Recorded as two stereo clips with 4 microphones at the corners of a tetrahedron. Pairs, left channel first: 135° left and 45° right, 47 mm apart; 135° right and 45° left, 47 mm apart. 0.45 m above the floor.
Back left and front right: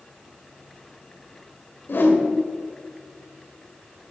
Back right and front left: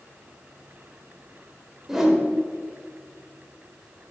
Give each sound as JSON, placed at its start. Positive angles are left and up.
{"t": 1.9, "sound": "a whoosh", "azimuth_deg": 120, "distance_m": 1.7}